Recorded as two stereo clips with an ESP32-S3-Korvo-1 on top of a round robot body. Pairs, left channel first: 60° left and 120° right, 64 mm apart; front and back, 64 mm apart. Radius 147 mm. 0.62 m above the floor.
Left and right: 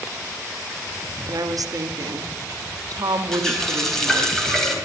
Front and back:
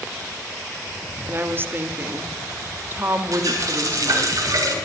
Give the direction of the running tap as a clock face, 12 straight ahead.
7 o'clock.